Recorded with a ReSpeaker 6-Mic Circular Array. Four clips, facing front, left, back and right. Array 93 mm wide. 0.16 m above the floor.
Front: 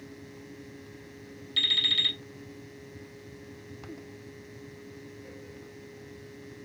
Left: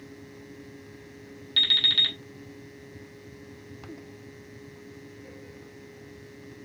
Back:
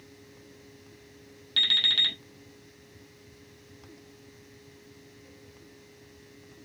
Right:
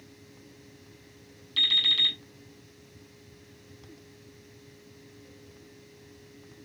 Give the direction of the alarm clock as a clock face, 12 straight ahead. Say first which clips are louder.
Left 2 dB, back 2 dB; 8 o'clock.